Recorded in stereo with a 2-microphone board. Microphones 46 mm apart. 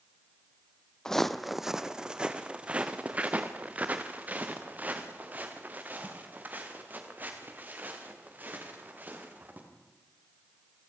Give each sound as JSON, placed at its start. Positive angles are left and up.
{"t": 1.1, "sound": "footsteps", "side_deg": 10, "distance_m": 0.7}